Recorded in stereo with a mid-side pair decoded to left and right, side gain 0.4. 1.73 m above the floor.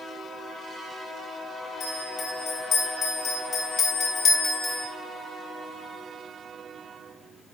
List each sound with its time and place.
1.8 s a bell: 60° left, 4 m